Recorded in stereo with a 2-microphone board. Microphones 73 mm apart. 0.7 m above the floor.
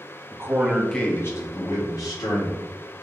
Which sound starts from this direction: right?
A man speaking, at 0.3 s.